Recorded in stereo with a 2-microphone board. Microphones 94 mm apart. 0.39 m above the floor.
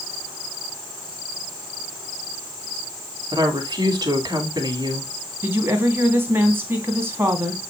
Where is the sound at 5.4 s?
25° right (ahead or behind), 2.5 m.